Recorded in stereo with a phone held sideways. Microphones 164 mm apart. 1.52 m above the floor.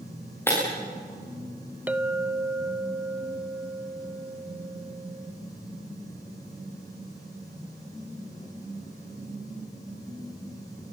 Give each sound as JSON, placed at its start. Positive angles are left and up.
{"t": 0.5, "sound": "breaking glass", "side_deg": 15, "distance_m": 9.0}
{"t": 1.9, "sound": "a clink", "side_deg": -10, "distance_m": 0.7}